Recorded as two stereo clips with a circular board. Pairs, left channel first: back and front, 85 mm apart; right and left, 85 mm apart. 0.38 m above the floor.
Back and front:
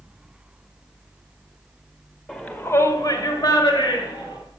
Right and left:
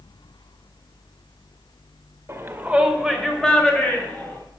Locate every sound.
2.3 s a shout: 105° left, 1.4 m; by 4.4 s 160° right, 3 m